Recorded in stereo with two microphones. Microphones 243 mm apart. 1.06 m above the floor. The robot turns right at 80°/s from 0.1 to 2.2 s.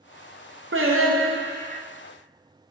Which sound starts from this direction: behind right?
Singing, at 0.7 s.